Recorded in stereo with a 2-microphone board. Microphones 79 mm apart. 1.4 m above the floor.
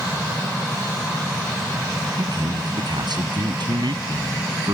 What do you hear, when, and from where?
2.2 s a man speaking: 65° right (ahead or behind)